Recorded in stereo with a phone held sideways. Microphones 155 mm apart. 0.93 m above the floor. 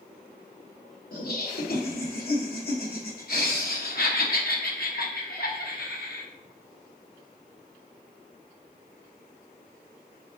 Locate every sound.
1.1 s laughter: 65° left (ahead or behind), 0.8 m